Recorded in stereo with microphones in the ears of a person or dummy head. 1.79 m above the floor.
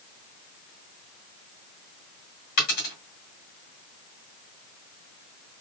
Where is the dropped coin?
35° left (ahead or behind), 2 m.